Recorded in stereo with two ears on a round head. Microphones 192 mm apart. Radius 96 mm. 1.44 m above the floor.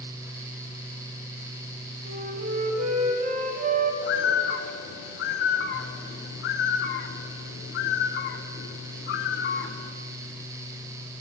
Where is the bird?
50° left (ahead or behind), 0.6 m.